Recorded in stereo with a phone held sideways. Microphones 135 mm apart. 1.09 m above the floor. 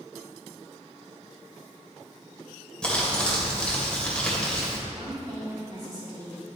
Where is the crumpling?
5° left (ahead or behind), 1.9 m.